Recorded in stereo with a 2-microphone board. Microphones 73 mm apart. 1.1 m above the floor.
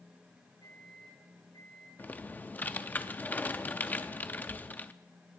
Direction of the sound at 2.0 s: 25° left (ahead or behind).